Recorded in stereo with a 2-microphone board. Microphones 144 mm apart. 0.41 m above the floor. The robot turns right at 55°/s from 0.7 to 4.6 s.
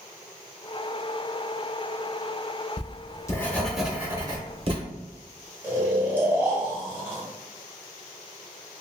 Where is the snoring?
15° right (ahead or behind), 1.4 m.